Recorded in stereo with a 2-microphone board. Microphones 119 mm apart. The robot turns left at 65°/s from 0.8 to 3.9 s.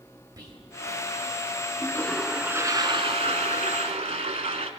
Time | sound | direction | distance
0.4 | whispering | 35° right (ahead or behind) | 1.7 m
1.8 | a toilet flushing | 25° left | 0.8 m